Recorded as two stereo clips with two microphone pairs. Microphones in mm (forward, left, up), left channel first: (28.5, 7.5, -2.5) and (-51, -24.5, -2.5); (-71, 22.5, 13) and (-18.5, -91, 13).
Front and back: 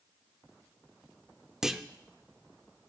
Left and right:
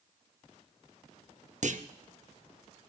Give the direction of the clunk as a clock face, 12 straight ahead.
3 o'clock.